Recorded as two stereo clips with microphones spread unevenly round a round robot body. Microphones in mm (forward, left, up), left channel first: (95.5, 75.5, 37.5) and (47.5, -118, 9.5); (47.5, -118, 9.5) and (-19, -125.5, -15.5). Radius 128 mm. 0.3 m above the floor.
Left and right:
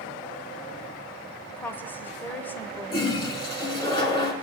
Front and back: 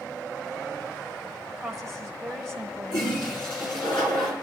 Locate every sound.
1.5 s a woman speaking: 165° left, 1.0 m
2.9 s a toilet flushing: 10° left, 3 m